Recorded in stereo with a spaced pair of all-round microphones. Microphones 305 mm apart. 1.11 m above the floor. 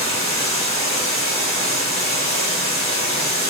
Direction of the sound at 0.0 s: 20° left (ahead or behind).